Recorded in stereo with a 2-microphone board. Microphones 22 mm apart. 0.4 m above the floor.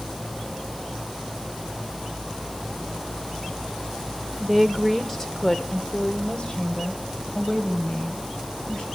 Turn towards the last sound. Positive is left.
turn(degrees=45)  # may be behind; listen again after turning